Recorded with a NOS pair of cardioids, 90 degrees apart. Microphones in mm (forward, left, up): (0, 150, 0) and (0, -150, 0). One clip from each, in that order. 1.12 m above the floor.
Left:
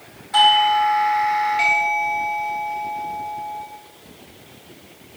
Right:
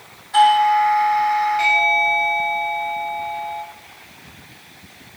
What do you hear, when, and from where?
0.3 s a doorbell: 15° left, 3 m